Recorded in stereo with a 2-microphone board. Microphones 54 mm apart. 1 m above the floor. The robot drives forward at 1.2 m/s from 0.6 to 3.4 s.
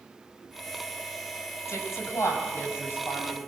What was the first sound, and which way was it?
A woman speaking, 65° left (ahead or behind).